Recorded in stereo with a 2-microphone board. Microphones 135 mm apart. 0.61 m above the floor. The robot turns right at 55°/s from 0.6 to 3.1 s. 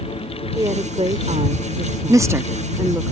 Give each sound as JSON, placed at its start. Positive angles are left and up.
{"t": 0.6, "sound": "a woman speaking", "azimuth_deg": -150}
{"t": 2.1, "sound": "a woman speaking", "side_deg": -25}